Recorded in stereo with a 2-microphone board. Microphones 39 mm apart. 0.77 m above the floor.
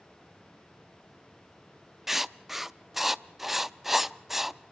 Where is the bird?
I don't hear a bird.